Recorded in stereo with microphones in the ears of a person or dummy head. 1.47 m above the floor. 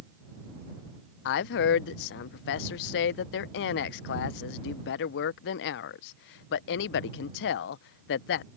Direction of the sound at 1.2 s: 65° left (ahead or behind).